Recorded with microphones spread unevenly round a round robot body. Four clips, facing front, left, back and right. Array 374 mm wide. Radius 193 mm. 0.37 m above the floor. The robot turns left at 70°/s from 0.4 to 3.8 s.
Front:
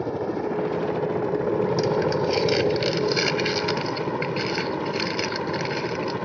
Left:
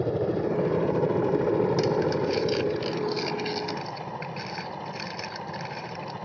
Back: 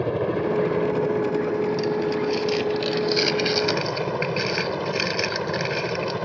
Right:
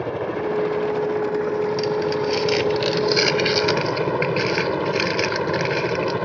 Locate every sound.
0.0 s a helicopter: 140° left; by 6.2 s 95° right
1.8 s crumpling: 30° left; by 6.2 s 115° right